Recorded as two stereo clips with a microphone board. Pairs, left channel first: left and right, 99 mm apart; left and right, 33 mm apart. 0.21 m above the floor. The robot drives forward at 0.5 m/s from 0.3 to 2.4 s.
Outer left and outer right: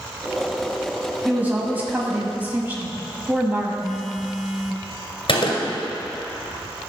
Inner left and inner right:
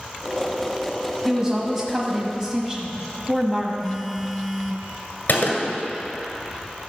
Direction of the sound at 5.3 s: 60° left (ahead or behind).